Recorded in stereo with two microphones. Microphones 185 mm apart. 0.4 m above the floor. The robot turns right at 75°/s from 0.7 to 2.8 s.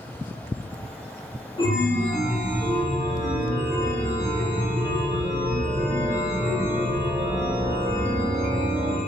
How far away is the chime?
About 0.5 m.